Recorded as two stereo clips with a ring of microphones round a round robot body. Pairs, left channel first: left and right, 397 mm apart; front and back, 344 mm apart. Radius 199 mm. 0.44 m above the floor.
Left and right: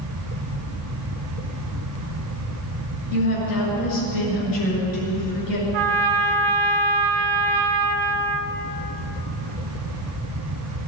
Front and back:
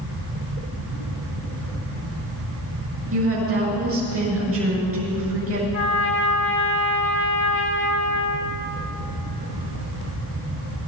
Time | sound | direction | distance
3.1 | a woman speaking | 130° left | 7 m
5.7 | a trumpet | 60° right | 0.8 m